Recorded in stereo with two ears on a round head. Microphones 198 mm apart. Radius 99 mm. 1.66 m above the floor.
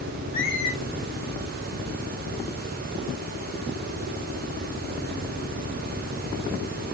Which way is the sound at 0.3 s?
40° left (ahead or behind).